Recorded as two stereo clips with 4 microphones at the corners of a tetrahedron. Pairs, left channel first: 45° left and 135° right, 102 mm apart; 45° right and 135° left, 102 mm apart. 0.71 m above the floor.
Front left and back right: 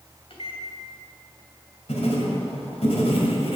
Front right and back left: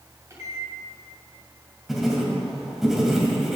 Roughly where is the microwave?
Left.